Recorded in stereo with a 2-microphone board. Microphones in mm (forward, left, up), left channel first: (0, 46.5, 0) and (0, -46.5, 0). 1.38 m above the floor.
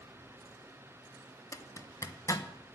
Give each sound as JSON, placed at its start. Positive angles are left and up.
{"t": 1.5, "sound": "a zipper", "side_deg": 35, "distance_m": 0.8}